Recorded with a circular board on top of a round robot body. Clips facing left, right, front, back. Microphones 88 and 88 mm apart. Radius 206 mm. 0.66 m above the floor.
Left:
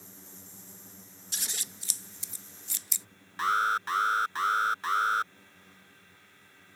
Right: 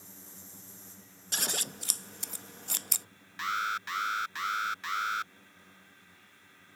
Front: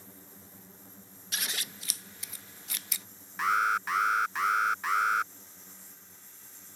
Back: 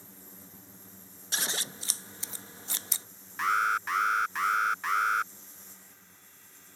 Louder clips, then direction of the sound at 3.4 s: Left 6 dB, even; 90° left.